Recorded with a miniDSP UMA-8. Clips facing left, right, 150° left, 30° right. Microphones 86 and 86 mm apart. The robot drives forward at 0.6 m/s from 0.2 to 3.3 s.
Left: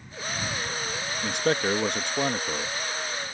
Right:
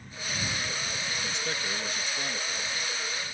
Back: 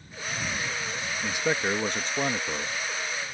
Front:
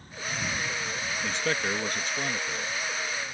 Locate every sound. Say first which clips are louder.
1.2 s a man speaking: left 14 dB, back 3 dB; 70° left; by 2.8 s 115° left